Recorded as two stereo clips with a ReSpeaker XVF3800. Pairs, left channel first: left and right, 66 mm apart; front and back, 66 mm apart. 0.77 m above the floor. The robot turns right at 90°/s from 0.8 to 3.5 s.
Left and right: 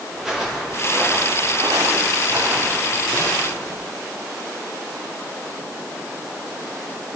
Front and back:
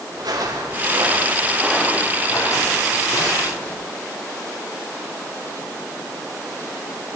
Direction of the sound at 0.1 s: 170° right.